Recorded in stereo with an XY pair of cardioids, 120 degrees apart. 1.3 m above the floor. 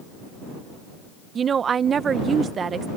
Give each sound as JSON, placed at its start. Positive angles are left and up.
{"t": 1.4, "sound": "a woman speaking", "azimuth_deg": -40}